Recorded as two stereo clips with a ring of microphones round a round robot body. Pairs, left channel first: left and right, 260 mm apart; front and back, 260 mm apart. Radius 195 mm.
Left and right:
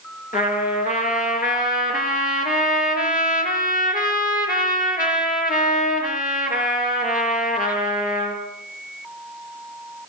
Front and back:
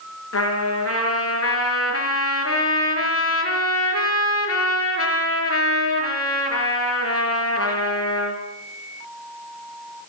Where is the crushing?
No crushing in this recording.